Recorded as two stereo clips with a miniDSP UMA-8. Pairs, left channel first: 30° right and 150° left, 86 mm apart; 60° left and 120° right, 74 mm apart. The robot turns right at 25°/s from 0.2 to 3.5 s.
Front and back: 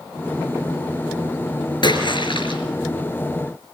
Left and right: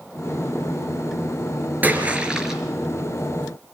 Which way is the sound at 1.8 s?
55° right.